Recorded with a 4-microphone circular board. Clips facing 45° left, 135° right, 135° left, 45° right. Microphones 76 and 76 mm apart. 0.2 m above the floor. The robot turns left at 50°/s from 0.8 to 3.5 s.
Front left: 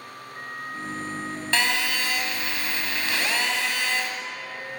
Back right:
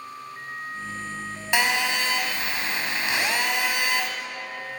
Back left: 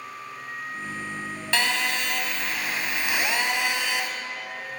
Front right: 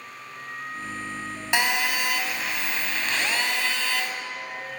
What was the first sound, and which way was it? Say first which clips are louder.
A phone buzzing: back right 2 dB, front right 1 dB; 85° right.